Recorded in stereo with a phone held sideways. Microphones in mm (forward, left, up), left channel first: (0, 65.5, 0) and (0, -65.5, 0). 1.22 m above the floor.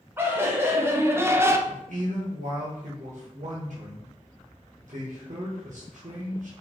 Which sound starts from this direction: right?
A man speaking, at 1.7 s.